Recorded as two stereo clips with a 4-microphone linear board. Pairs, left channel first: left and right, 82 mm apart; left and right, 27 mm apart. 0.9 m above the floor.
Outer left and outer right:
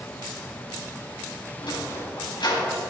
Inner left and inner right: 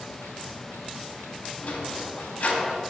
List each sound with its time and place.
1.6 s a sliding door: 70° left (ahead or behind), 3 m